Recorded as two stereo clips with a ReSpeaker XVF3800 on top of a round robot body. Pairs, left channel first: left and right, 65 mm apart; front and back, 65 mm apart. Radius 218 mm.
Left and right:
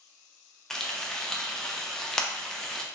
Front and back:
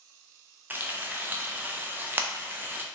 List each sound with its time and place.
0.7 s frying: 165° left, 0.7 m